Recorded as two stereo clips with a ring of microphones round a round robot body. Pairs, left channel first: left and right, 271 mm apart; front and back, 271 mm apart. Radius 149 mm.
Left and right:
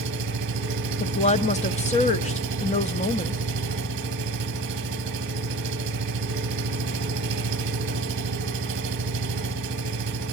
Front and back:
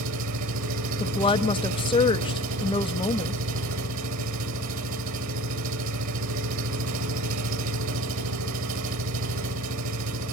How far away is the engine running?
About 2 m.